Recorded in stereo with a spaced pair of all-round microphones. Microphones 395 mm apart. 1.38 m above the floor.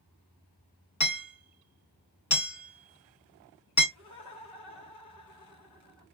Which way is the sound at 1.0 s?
45° left (ahead or behind).